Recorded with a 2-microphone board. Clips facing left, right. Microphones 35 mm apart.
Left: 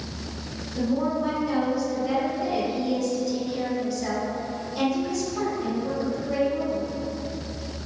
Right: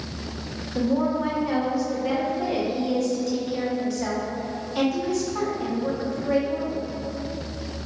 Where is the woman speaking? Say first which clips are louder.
Right 2 dB; 70° right (ahead or behind), 1.1 m.